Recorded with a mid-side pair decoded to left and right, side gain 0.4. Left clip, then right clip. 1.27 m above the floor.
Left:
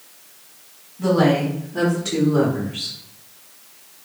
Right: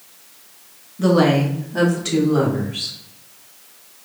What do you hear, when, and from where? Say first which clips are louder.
1.0 s a woman speaking: right 2 dB; 70° right, 2.0 m; by 3.0 s 45° right, 3 m